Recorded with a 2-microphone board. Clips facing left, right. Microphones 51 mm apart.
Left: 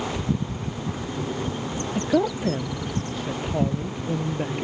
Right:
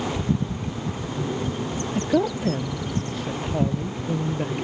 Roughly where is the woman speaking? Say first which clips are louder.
Even; centre.